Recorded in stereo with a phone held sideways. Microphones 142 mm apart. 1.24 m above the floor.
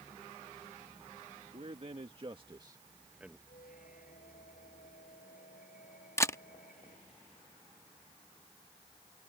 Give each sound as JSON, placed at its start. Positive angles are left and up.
{"t": 1.5, "sound": "a man speaking", "side_deg": -55}
{"t": 3.5, "sound": "a squeak", "side_deg": 75}
{"t": 6.2, "sound": "a camera shutter", "side_deg": 20}